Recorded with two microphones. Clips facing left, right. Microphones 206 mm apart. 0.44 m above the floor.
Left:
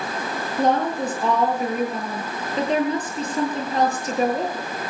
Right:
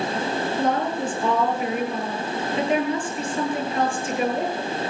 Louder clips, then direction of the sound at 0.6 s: Left 5 dB; 40° left (ahead or behind).